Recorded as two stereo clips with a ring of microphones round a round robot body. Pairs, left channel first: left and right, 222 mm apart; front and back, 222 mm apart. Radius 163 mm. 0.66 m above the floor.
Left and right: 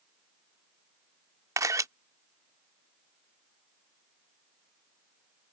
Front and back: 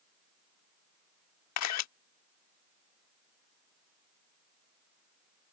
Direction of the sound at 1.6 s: 10° right.